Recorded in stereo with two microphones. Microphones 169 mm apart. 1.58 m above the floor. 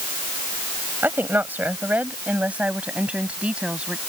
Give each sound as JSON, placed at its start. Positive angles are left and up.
{"t": 1.0, "sound": "a woman speaking", "side_deg": -10}